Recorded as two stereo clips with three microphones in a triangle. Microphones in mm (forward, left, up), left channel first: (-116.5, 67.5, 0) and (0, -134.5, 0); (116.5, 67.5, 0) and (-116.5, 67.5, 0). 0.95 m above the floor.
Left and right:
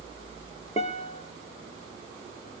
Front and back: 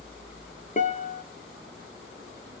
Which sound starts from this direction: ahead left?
A guitar, at 0.8 s.